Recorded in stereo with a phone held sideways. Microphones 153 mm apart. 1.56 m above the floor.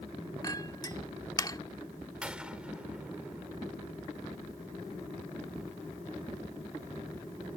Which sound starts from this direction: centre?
A gunshot, at 2.2 s.